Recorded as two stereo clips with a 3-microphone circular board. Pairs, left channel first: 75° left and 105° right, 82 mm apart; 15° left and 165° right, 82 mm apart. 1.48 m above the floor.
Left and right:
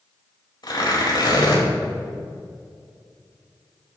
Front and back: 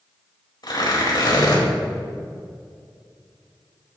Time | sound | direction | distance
0.6 | tearing paper | 45° left | 4.5 m